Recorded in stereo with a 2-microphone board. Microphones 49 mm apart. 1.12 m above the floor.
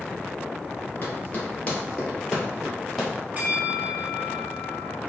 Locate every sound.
1.0 s running footsteps: 40° left (ahead or behind), 1.6 m; by 3.1 s 5° left (ahead or behind), 2.5 m
3.4 s a bell: 35° right (ahead or behind), 0.6 m